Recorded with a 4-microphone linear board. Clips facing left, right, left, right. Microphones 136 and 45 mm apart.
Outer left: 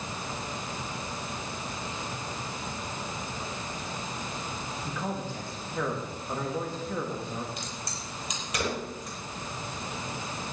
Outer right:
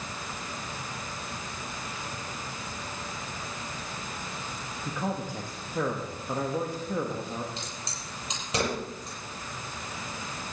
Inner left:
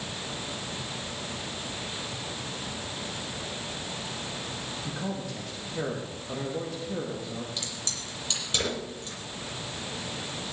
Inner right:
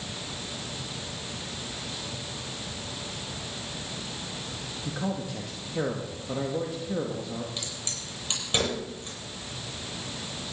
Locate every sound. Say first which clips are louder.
4.8 s a man speaking: outer right 3 dB, inner right 4 dB; 15° right (ahead or behind), 1.8 m
7.6 s a crack: outer left 1 dB, inner left 1 dB; 30° right (ahead or behind), 8.5 m